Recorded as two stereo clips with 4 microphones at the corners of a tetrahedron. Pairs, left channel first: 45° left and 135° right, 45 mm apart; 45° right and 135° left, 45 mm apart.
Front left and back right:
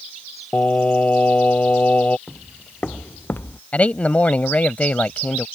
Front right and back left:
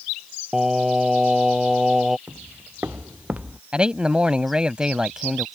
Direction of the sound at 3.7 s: 80° left.